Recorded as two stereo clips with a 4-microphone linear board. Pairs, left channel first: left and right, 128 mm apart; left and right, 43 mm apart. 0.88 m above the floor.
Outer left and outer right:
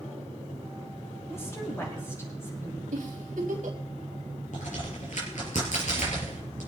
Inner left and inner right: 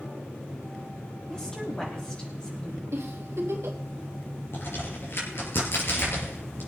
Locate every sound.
1.3 s a woman speaking: 20° left (ahead or behind), 6 m
2.9 s a giggle: 80° right, 3 m
4.5 s a crack: 65° left (ahead or behind), 5 m